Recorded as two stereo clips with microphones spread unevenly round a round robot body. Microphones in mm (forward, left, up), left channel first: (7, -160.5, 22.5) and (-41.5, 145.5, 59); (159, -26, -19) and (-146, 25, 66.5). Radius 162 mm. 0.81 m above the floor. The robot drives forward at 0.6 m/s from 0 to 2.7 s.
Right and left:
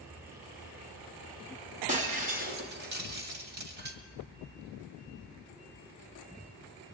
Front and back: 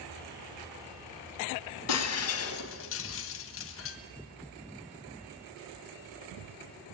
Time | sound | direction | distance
1.9 | breaking glass | 30° left | 2 m